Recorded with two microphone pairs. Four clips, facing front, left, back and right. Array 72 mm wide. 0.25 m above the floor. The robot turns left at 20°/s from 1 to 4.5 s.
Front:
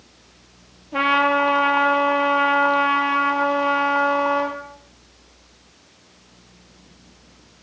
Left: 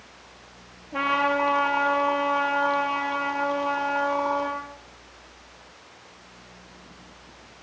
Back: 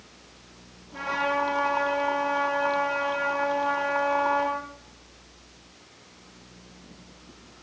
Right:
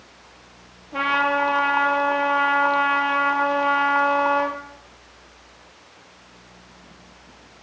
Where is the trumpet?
10° left, 5.5 m; by 4.6 s 60° right, 5.5 m.